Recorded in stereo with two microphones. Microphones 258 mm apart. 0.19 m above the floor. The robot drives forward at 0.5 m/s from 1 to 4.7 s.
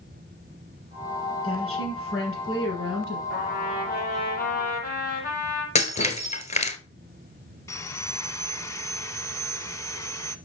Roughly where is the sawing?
Centre.